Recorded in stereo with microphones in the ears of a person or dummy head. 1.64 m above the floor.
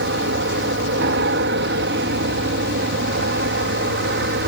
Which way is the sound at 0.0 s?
65° right (ahead or behind).